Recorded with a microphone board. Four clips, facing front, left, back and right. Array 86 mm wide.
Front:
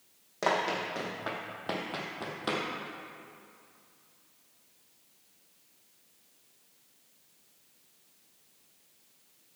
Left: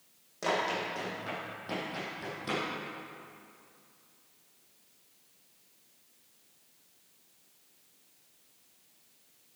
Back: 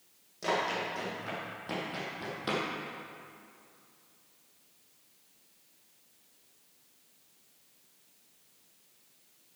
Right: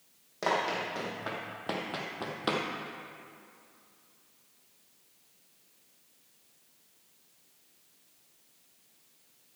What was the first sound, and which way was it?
Running footsteps, 20° right.